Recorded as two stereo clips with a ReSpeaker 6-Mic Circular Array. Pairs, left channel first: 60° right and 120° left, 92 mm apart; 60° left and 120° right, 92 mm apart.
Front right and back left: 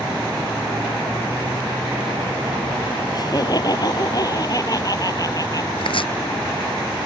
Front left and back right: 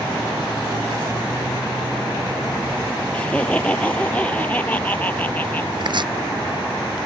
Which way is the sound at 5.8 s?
85° right.